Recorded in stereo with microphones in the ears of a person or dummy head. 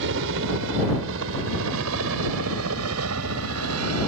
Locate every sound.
0.0 s a helicopter: 65° right (ahead or behind); by 4.1 s 80° right